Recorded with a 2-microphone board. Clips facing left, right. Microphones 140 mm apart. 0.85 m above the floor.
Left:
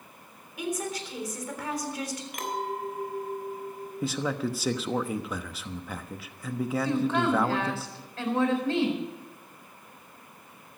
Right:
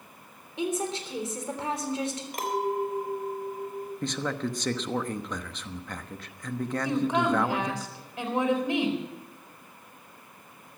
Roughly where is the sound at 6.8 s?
Centre.